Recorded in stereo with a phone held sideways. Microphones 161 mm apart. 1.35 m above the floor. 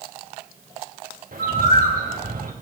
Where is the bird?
65° right (ahead or behind), 2 m.